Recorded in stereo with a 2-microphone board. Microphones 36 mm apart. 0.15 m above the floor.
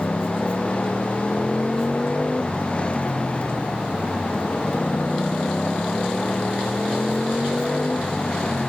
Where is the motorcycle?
35° left (ahead or behind); by 8.7 s 20° left (ahead or behind).